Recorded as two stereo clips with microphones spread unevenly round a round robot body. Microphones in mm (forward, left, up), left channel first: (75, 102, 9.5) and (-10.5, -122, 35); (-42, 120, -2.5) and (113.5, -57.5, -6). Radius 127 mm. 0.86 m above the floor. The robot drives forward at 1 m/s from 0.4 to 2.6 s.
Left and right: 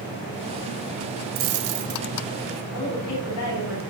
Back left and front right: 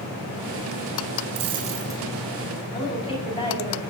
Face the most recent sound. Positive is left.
turn(degrees=65)